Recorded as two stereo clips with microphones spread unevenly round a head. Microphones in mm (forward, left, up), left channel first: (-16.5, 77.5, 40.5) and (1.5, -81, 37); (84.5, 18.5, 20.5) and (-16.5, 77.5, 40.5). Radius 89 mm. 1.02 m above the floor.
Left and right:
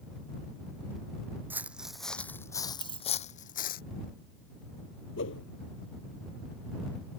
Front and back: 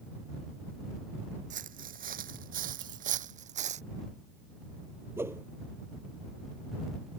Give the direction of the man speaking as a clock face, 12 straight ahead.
No man speaking in this recording.